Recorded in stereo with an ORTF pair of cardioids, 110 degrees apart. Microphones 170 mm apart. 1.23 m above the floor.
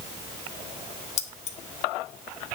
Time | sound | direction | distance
1.2 | keys jangling | 40° left | 1.6 m